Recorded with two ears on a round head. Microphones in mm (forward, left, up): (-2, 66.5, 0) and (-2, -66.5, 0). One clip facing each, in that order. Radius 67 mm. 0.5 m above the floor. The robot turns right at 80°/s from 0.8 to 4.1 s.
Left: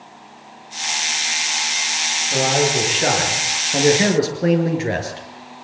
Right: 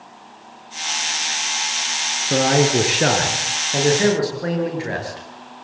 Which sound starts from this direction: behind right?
A man speaking, at 2.3 s.